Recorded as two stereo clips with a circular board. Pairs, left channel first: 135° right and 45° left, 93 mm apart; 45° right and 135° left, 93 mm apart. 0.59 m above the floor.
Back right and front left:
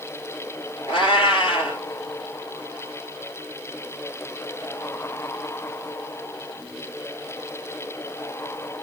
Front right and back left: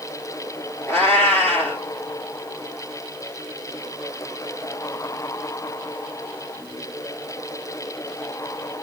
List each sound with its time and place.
0.9 s a cat meowing: 110° right, 2.5 m